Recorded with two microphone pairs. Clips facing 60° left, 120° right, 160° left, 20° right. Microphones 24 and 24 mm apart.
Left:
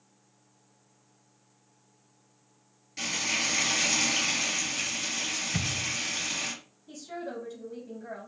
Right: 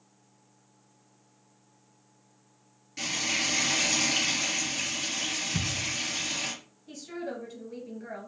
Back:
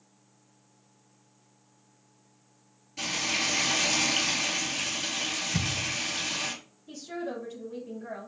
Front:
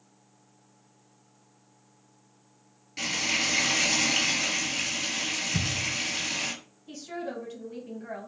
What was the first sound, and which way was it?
Frying, 25° right.